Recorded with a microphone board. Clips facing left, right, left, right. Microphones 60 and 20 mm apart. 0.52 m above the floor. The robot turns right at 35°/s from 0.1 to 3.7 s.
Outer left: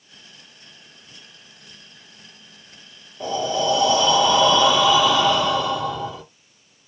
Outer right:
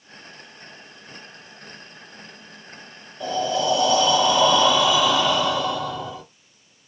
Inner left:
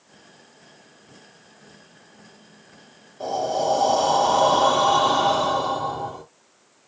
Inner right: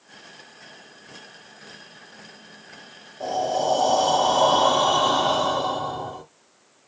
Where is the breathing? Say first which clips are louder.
Even, even; 10° left (ahead or behind), 1.5 m; by 6.2 s centre (ahead or behind), 1.5 m.